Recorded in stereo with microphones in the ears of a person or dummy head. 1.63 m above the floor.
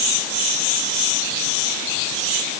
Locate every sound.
Only background noise.